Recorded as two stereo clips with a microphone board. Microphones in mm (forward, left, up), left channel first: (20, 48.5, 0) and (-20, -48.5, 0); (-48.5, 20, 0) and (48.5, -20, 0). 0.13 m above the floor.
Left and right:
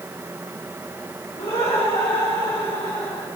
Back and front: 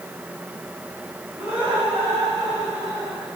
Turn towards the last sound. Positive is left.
turn(degrees=25)